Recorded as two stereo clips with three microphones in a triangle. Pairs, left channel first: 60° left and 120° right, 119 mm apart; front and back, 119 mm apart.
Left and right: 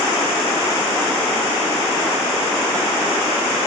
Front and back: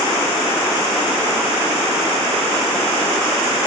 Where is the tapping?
I don't hear tapping.